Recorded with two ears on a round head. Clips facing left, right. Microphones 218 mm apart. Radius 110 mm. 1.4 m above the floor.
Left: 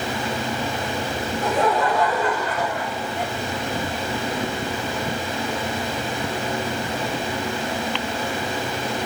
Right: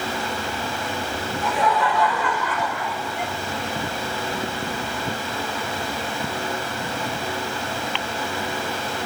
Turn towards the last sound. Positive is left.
turn(degrees=30)  # may be behind; listen again after turning